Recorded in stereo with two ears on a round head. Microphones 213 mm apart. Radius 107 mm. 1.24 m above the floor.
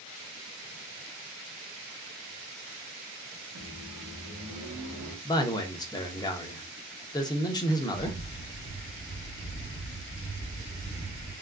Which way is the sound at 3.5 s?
70° right (ahead or behind).